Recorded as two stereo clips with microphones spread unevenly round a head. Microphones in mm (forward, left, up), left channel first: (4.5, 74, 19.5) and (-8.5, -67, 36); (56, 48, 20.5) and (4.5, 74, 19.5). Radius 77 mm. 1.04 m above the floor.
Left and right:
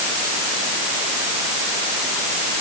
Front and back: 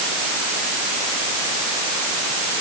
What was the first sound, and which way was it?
Only background noise.